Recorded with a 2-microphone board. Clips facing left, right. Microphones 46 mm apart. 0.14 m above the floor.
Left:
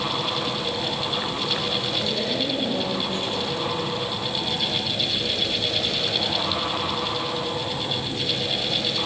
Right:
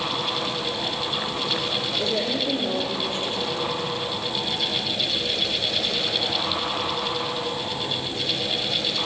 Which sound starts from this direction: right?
A woman speaking, at 2.0 s.